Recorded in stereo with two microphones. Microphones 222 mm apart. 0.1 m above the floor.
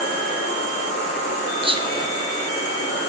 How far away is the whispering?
About 1.8 m.